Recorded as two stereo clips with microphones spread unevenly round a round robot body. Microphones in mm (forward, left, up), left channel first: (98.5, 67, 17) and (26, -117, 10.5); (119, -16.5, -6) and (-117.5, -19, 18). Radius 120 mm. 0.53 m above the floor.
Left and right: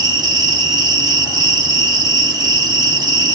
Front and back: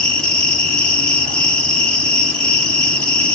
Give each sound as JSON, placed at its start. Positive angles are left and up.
{"t": 0.0, "sound": "an insect", "azimuth_deg": -70, "distance_m": 1.4}